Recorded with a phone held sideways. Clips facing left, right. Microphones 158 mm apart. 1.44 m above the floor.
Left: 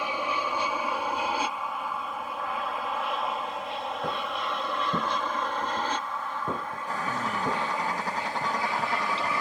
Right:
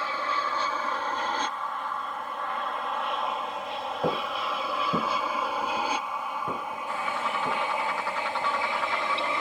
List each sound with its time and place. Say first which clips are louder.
0.0 s an aircraft: left 1 dB; 15° left (ahead or behind); by 9.4 s 25° right (ahead or behind)
4.0 s footsteps: right 6 dB; 40° right (ahead or behind); by 7.6 s 15° left (ahead or behind)
6.9 s a bird: left 1 dB; 40° left (ahead or behind)